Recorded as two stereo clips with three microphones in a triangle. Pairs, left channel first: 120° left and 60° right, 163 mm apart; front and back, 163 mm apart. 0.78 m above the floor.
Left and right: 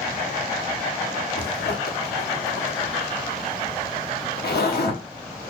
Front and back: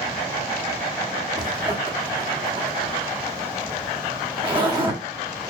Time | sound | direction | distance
1.4 | a zipper | 120° left | 1.3 m